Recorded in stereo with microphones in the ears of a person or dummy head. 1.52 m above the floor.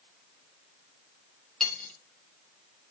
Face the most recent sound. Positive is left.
turn(degrees=5)  # may be behind; listen again after turning